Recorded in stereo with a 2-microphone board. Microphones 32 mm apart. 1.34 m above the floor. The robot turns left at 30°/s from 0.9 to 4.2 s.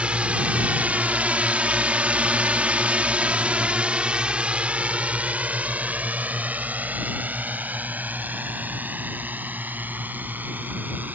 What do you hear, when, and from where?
0.0 s a drone: 35° right (ahead or behind); by 11.2 s 70° right (ahead or behind)